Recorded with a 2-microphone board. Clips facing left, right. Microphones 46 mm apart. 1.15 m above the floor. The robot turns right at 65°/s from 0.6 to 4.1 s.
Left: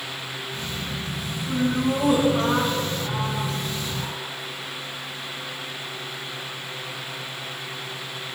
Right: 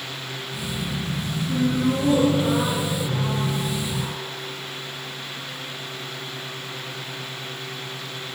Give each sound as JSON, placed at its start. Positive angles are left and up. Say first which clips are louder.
{"t": 1.5, "sound": "laughter", "louder": "right 1 dB", "azimuth_deg": 35, "distance_m": 10.0}